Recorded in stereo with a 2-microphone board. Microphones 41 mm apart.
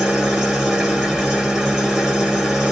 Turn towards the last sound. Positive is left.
turn(degrees=-15)  # may be behind; listen again after turning